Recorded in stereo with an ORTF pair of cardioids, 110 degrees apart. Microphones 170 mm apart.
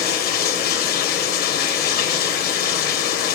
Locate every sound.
0.0 s running water: 70° left, 1.7 m